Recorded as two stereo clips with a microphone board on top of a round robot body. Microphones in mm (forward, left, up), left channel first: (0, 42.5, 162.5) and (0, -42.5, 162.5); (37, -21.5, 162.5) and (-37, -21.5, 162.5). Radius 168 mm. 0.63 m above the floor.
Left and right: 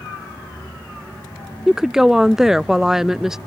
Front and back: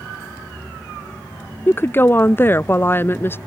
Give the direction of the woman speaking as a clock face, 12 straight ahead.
12 o'clock.